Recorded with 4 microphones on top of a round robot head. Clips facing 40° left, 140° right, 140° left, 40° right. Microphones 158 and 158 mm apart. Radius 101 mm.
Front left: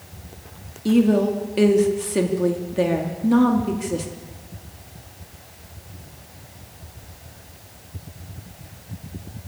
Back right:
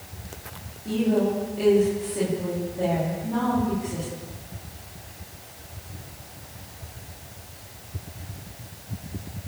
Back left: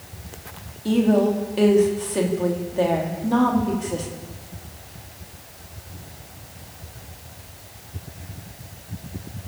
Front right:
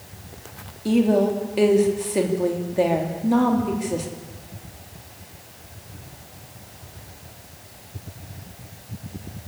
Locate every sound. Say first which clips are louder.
0.8 s a woman speaking: front left 6 dB, even; 40° left, 3 m